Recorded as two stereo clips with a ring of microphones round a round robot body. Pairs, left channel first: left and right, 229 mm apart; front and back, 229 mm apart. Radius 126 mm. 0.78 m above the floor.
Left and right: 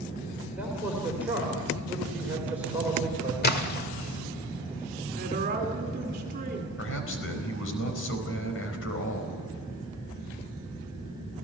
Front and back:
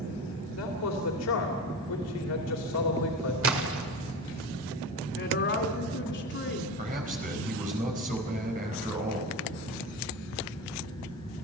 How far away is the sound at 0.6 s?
About 3 m.